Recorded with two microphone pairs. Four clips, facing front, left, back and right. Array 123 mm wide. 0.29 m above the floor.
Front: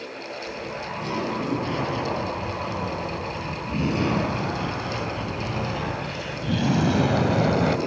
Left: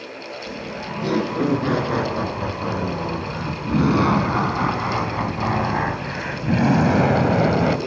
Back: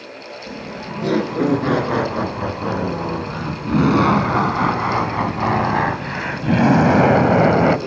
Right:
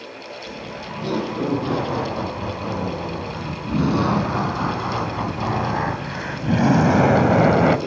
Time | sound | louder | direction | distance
0.5 | laughter | left 3 dB, back 3 dB | 160° left | 5 m